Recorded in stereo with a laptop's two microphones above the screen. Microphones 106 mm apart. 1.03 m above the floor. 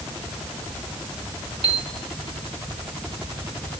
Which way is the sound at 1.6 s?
70° right (ahead or behind).